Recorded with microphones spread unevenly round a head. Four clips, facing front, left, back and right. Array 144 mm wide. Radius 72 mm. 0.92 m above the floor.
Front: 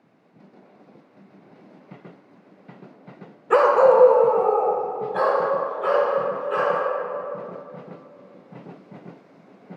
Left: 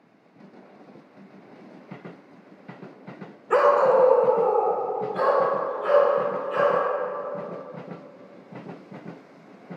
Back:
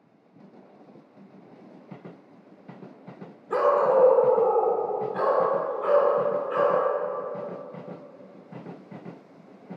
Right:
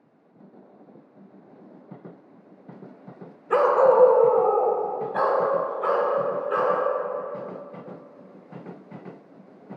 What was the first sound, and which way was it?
A dog barking, 15° left.